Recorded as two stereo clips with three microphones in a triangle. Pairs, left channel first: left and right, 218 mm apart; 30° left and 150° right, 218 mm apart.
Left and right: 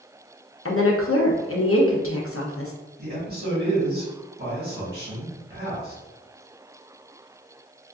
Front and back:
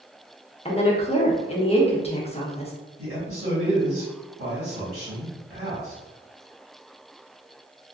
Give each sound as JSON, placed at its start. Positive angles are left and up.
{"t": 0.7, "sound": "a woman speaking", "azimuth_deg": 90, "distance_m": 0.6}
{"t": 3.0, "sound": "a man speaking", "azimuth_deg": -135, "distance_m": 1.5}